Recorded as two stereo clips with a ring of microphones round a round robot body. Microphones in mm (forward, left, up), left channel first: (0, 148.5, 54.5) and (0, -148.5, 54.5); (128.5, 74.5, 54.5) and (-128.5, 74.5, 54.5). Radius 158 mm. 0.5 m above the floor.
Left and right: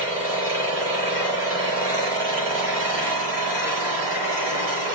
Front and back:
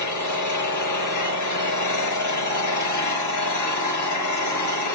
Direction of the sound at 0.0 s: 5° right.